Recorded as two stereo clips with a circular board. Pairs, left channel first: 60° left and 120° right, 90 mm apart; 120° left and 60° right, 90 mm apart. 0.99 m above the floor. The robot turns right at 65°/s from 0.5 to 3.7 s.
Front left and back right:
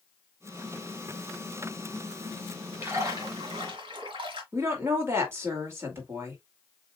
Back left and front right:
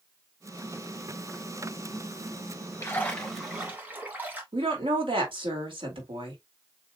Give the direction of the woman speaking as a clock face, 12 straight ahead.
2 o'clock.